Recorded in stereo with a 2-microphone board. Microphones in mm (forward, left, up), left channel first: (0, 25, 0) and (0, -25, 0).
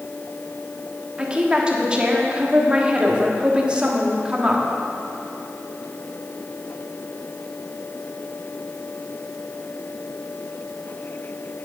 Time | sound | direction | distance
1.2 | a woman speaking | 20° right (ahead or behind) | 1.2 m